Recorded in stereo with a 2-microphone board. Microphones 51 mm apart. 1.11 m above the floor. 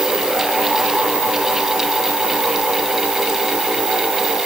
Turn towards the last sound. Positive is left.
No sound to turn to.